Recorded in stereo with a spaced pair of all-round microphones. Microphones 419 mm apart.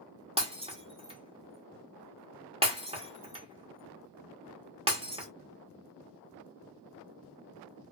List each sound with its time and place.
0.4 s breaking glass: 15° right (ahead or behind), 1.0 m